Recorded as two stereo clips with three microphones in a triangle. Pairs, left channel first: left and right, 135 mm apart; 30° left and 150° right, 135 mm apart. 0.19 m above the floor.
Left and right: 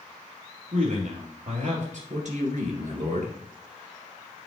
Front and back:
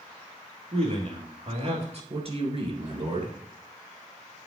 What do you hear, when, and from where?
0.7 s a man speaking: 110° right, 3.5 m
2.1 s a man speaking: 110° right, 2.5 m